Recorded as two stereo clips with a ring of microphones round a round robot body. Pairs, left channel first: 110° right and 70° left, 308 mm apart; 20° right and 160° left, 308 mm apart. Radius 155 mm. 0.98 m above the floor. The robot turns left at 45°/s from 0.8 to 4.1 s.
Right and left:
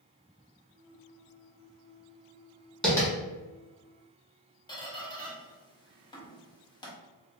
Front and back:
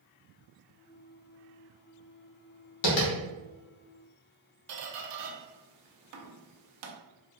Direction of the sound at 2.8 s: 25° right.